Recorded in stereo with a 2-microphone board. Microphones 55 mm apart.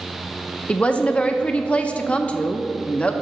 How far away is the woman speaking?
About 0.5 m.